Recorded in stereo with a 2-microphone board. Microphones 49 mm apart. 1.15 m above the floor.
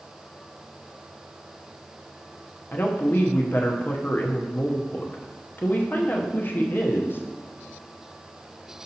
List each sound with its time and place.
2.7 s a woman speaking: 40° left (ahead or behind), 0.8 m